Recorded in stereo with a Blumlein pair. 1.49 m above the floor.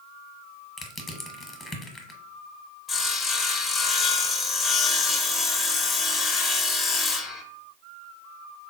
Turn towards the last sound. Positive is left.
turn(degrees=20)